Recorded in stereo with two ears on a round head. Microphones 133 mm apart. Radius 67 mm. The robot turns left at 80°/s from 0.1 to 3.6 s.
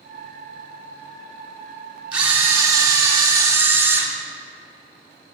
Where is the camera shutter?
10° right (ahead or behind), 1.0 m; by 4.1 s 15° right (ahead or behind), 1.0 m.